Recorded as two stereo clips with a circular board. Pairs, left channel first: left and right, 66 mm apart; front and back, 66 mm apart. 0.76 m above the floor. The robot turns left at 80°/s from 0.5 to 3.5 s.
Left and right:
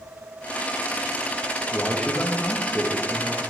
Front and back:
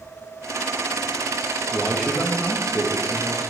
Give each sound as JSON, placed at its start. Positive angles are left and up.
{"t": 1.7, "sound": "a man speaking", "azimuth_deg": 105, "distance_m": 0.9}